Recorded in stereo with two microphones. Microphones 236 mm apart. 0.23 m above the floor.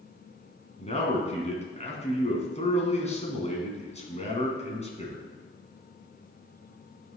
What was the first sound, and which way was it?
A man speaking, 30° left (ahead or behind).